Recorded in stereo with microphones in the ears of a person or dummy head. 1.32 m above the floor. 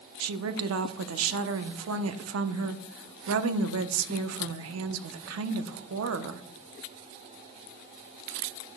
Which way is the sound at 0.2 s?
75° right (ahead or behind).